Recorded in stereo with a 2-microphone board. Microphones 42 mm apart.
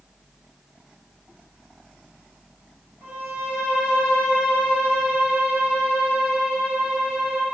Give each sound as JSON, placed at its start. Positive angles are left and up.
{"t": 3.0, "sound": "a violin", "side_deg": -60, "distance_m": 3.0}